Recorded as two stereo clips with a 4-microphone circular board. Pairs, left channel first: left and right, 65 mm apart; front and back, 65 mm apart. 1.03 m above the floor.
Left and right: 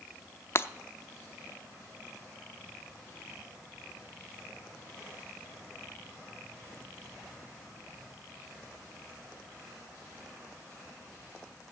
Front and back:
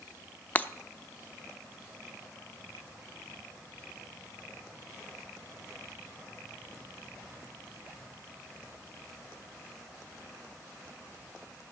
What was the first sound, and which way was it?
Breaking glass, 55° left.